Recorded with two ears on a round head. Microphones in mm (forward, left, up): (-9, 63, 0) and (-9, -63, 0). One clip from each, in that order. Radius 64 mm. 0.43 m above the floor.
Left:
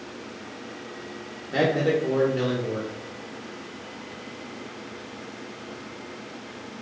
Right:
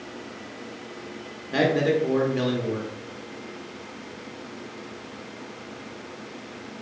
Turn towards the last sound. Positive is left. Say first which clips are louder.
# right 1 dB
turn(degrees=-20)  # may be behind; listen again after turning